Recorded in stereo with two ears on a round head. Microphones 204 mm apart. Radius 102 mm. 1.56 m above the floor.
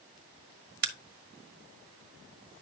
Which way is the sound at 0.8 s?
45° right (ahead or behind).